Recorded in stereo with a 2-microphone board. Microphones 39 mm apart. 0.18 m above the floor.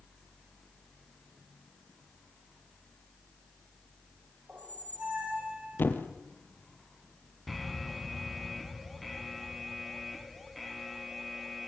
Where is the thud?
60° left (ahead or behind), 2.5 m.